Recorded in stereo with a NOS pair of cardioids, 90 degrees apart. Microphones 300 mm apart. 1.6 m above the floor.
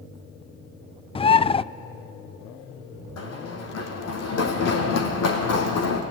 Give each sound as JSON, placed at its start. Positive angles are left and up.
{"t": 1.1, "sound": "a bird", "azimuth_deg": 20, "distance_m": 0.5}
{"t": 3.2, "sound": "running footsteps", "azimuth_deg": 60, "distance_m": 5.0}